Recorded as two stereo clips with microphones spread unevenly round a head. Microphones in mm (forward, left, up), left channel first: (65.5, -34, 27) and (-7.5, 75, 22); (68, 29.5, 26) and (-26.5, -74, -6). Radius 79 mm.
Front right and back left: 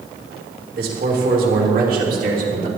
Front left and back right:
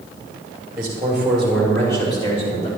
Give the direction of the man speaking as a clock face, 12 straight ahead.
7 o'clock.